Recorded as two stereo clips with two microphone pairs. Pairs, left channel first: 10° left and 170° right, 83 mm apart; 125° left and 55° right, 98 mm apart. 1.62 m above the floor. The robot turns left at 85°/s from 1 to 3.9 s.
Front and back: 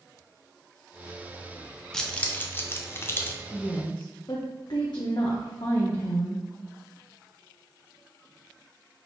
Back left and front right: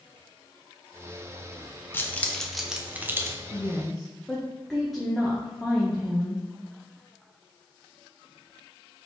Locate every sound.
1.9 s keys jangling: 90° left, 0.5 m; by 3.4 s 30° right, 0.5 m
3.5 s a woman speaking: 75° left, 0.7 m; by 6.4 s 40° left, 0.7 m